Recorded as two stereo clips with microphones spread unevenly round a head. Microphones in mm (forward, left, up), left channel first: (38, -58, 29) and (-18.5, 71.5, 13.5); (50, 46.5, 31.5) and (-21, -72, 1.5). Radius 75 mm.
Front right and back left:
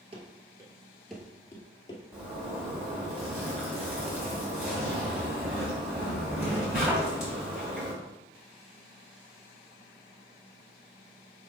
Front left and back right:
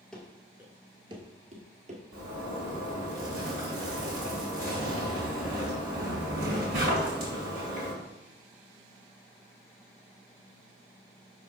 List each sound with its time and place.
0.1 s running footsteps: 110° left, 1.2 m; by 2.0 s 95° right, 1.4 m
2.1 s a zipper: 155° right, 3 m